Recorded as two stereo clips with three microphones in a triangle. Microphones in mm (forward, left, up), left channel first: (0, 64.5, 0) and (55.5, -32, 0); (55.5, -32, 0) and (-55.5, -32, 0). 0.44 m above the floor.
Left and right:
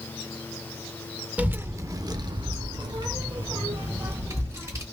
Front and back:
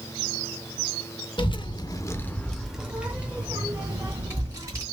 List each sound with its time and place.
1.4 s a child speaking: 15° left, 0.6 m; by 4.8 s 115° right, 1.8 m